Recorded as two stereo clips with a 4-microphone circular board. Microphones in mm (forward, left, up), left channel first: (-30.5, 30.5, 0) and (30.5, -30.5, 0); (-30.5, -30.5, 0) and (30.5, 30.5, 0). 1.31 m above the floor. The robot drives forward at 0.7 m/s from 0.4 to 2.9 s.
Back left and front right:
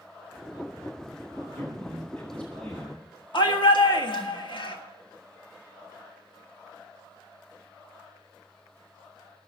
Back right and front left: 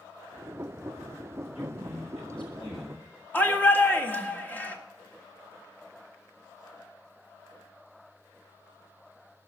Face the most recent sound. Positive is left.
turn(degrees=155)